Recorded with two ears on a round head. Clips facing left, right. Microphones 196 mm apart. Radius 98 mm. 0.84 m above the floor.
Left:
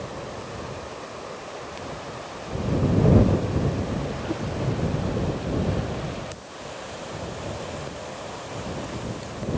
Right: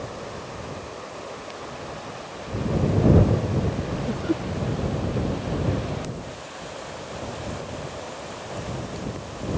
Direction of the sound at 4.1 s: 30° right (ahead or behind).